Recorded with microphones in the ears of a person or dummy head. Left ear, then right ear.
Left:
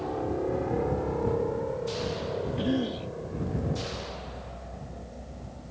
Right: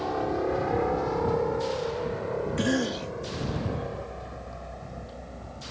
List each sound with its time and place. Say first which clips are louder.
0.0 s a helicopter: right 3 dB; 55° right (ahead or behind); by 5.7 s 45° right (ahead or behind)
2.6 s a cough: right 3 dB; 60° right (ahead or behind)